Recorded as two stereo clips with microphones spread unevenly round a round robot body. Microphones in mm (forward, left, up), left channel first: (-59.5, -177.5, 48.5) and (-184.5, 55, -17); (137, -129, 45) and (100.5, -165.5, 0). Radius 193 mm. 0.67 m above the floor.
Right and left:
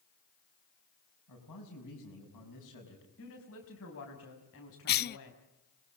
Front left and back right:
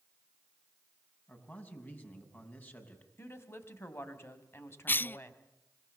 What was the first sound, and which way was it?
A man speaking, 15° right.